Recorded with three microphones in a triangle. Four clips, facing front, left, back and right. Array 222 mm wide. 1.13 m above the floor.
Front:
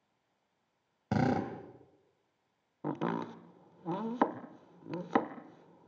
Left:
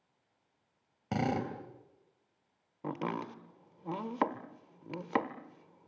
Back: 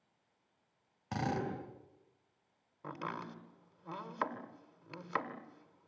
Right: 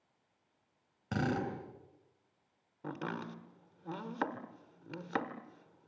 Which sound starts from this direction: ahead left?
Chopping, at 2.8 s.